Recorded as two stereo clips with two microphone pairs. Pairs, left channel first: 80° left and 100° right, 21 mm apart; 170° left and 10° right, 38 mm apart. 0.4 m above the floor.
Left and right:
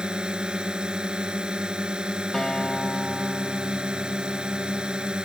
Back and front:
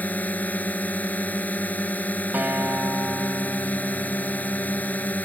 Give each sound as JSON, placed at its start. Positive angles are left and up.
{"t": 0.0, "sound": "a drone", "azimuth_deg": -145}
{"t": 2.3, "sound": "a guitar", "azimuth_deg": 15}